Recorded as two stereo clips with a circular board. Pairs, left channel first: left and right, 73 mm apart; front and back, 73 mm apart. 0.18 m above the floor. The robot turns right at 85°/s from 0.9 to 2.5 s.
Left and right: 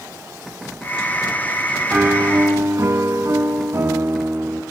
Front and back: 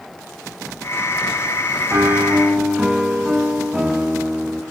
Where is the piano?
150° right, 1.6 m; by 4.6 s 100° right, 1.6 m.